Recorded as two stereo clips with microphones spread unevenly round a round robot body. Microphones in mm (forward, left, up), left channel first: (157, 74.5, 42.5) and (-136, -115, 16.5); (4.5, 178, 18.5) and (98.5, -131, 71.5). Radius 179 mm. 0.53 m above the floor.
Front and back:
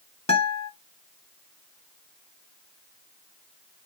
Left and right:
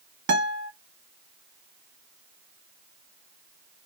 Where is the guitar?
35° right, 1.1 m.